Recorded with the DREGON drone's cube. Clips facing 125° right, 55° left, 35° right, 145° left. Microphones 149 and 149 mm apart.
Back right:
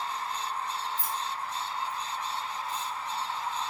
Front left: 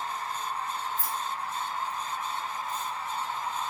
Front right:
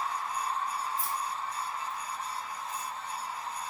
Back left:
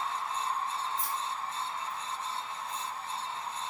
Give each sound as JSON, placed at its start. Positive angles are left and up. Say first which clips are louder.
{"t": 1.0, "sound": "keys jangling", "louder": "front left 1 dB, front right 1 dB", "azimuth_deg": -120, "distance_m": 1.8}